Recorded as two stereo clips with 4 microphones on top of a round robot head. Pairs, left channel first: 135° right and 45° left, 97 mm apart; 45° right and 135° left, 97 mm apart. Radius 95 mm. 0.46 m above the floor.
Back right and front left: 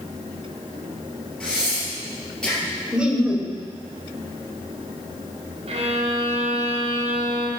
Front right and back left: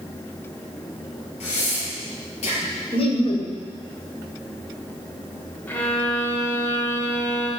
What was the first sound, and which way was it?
Breathing, 55° right.